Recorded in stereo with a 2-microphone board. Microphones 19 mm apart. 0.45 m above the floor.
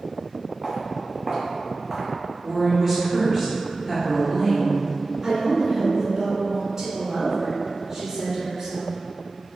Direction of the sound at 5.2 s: 25° right (ahead or behind).